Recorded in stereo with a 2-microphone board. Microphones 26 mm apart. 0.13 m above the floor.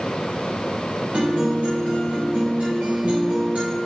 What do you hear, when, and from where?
1.1 s a guitar: 45° right (ahead or behind), 4 m